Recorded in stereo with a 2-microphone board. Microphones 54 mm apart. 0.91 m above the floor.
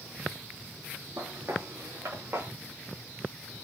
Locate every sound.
1.2 s footsteps: 60° right (ahead or behind), 6 m; by 2.5 s 55° right (ahead or behind), 7 m